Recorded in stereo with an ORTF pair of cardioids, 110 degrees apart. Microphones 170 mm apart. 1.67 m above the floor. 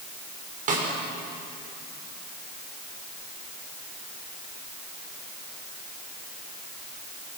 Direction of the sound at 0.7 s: 50° right.